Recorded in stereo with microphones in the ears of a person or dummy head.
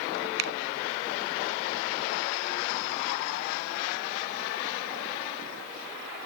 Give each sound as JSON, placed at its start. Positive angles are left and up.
{"t": 0.4, "sound": "a finger snap", "side_deg": -65}